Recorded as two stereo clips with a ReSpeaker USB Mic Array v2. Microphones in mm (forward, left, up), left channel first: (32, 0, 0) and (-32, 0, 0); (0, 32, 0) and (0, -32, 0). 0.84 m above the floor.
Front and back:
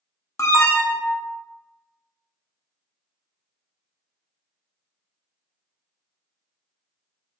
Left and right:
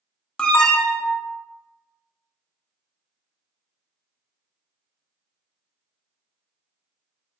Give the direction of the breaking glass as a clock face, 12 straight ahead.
No breaking glass in this recording.